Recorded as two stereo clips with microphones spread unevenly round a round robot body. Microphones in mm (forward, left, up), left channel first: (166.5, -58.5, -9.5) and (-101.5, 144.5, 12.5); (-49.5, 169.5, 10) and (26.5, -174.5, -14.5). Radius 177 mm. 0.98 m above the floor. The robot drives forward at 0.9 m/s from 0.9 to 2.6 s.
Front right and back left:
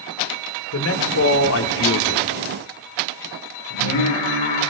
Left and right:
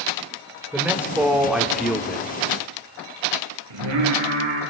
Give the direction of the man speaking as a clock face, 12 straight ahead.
12 o'clock.